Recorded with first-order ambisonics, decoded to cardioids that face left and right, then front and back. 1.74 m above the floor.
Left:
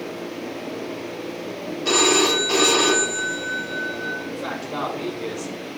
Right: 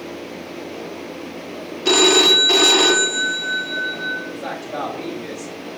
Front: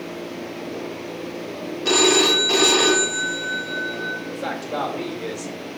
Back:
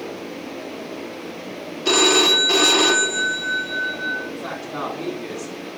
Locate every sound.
1.9 s a phone ringing: 100° right, 0.6 m
4.3 s a man speaking: 5° left, 1.8 m